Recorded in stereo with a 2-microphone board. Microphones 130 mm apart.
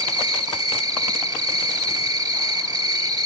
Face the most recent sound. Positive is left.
turn(degrees=-30)  # may be behind; listen again after turning